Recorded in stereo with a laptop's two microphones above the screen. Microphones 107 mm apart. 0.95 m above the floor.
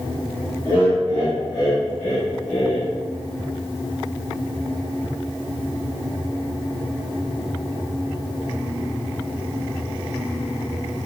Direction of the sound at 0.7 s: 50° left (ahead or behind).